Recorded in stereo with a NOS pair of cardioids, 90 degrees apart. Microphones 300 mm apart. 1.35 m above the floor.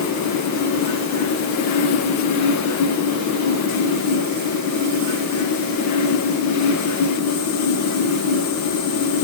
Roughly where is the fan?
Left.